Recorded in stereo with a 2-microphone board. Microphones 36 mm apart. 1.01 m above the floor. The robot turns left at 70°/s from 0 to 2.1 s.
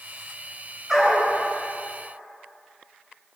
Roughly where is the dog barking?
Centre.